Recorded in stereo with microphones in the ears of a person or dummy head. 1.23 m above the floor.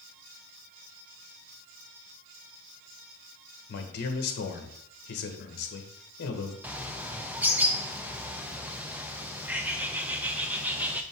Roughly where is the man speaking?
Left.